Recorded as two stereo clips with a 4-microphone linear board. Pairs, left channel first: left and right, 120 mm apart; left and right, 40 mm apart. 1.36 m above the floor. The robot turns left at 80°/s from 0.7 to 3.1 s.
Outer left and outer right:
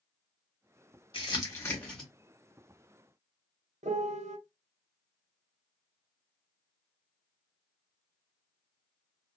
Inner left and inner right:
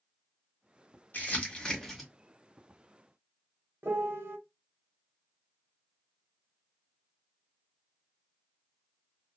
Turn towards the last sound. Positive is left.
turn(degrees=-75)  # may be behind; listen again after turning